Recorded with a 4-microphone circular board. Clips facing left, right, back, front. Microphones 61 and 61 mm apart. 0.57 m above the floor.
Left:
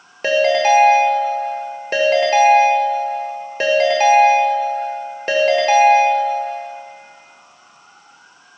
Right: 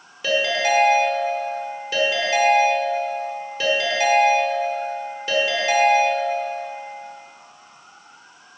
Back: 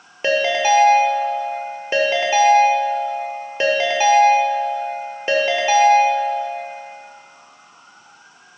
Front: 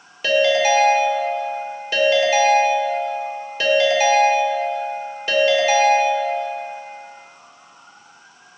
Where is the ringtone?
125° left, 1.1 m.